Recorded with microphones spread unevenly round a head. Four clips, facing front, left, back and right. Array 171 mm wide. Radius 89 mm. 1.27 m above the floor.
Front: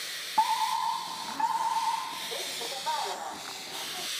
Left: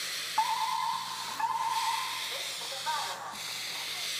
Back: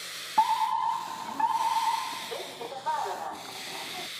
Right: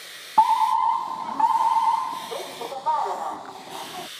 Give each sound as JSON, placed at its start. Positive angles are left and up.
{"t": 0.4, "sound": "a fire alarm", "azimuth_deg": -100}